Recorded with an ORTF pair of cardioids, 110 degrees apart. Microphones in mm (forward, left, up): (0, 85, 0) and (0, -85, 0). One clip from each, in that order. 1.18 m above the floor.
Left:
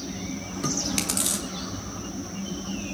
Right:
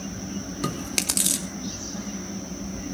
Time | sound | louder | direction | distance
0.6 | chewing | left 1 dB | 20° right | 3 m